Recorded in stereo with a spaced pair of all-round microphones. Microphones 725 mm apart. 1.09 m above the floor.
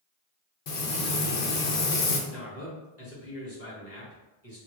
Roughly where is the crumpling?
I don't hear crumpling.